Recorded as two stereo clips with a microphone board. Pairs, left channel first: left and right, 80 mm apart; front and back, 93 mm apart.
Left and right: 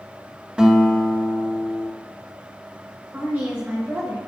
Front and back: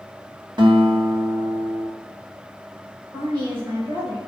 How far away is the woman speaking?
About 1.9 m.